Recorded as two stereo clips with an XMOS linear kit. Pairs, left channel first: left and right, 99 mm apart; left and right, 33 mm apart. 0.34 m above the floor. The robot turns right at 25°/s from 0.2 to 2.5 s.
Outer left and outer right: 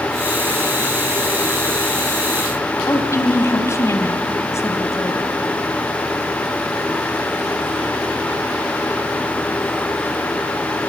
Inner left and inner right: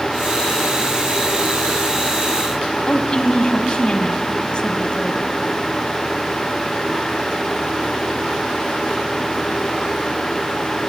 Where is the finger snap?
No finger snap in this recording.